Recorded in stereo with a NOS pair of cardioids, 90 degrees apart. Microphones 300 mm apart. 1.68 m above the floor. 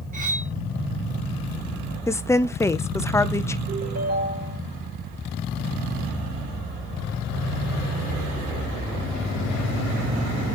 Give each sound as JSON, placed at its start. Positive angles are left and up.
{"t": 0.1, "sound": "cutlery clinking", "azimuth_deg": -25, "distance_m": 3.0}
{"t": 2.1, "sound": "a woman speaking", "azimuth_deg": 10, "distance_m": 0.6}
{"t": 3.7, "sound": "a ringtone", "azimuth_deg": -55, "distance_m": 4.5}